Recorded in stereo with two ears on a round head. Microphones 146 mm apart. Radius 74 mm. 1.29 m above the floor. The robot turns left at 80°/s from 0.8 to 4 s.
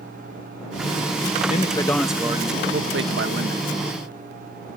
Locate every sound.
1.4 s a man speaking: 50° left; by 3.6 s 120° right